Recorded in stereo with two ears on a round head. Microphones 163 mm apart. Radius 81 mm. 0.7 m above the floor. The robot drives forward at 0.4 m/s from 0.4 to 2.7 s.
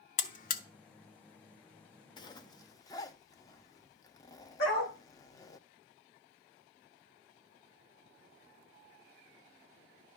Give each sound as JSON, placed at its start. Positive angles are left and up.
{"t": 0.2, "sound": "a buzzer", "side_deg": 45, "distance_m": 0.8}
{"t": 2.2, "sound": "a zipper", "side_deg": 25, "distance_m": 0.7}
{"t": 4.6, "sound": "a dog barking", "side_deg": 60, "distance_m": 8.5}